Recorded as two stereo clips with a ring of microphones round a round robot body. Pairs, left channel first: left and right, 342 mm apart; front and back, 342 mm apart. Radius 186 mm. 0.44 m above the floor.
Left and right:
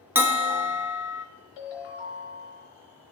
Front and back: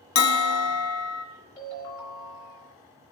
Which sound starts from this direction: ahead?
A bell, at 0.1 s.